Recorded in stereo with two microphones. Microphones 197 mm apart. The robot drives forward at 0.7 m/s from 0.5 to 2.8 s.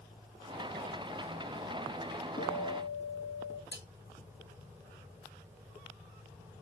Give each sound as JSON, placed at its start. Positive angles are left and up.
{"t": 2.4, "sound": "a guitar", "side_deg": 45, "distance_m": 5.0}
{"t": 3.7, "sound": "cutlery clinking", "side_deg": 75, "distance_m": 6.0}